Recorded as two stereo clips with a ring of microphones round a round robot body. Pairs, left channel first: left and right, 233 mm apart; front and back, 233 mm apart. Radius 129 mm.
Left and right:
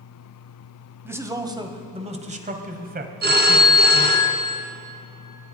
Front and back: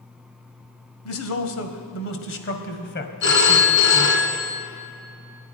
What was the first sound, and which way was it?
A man speaking, 10° right.